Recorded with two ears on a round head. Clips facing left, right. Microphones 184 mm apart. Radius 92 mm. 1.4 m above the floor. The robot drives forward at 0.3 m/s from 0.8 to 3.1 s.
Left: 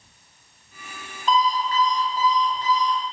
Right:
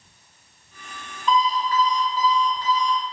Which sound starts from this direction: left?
An alarm clock, at 1.3 s.